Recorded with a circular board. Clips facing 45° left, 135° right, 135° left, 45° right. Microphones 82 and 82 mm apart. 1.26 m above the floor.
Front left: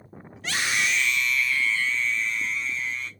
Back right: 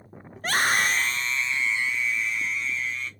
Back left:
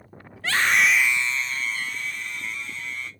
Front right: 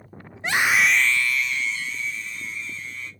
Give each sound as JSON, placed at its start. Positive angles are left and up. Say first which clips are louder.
{"t": 0.4, "sound": "a scream", "louder": "back right 4 dB, front right 1 dB", "azimuth_deg": -105, "distance_m": 0.6}